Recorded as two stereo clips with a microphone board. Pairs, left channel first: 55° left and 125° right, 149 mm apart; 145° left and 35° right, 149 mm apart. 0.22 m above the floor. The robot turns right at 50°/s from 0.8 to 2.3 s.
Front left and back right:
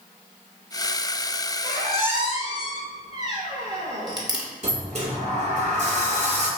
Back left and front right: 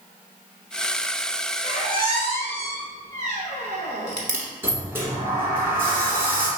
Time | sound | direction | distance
1.6 | a squeak | 100° right | 1.3 m
4.6 | a sliding door | 105° right | 1.4 m